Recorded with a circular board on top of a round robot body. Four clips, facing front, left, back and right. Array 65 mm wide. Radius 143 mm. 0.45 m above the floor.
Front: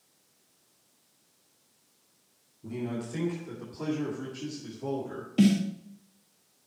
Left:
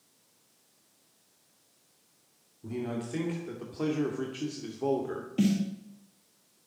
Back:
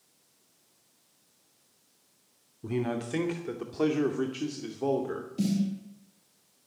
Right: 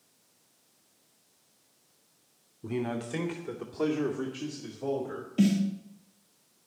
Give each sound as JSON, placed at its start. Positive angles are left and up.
{"t": 2.6, "sound": "a man speaking", "azimuth_deg": -140, "distance_m": 2.5}
{"t": 5.4, "sound": "a snare drum", "azimuth_deg": 0, "distance_m": 1.2}